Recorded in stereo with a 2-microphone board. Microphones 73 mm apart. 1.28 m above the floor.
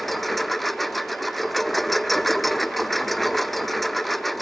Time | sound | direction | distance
0.0 | a lawn mower | centre (ahead or behind) | ?